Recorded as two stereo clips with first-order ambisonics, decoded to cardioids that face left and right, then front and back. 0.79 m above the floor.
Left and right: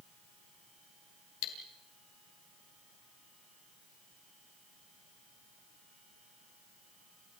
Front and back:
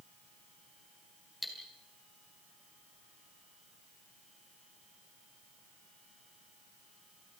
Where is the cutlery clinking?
85° left, 3.5 m.